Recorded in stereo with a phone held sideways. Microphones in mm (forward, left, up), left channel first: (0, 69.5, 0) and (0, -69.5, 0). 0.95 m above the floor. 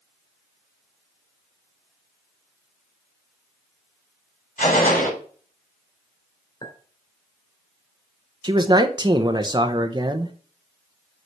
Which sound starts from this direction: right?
A man speaking, at 8.4 s.